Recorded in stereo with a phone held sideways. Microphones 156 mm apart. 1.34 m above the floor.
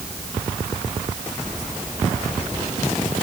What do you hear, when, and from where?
Only background noise.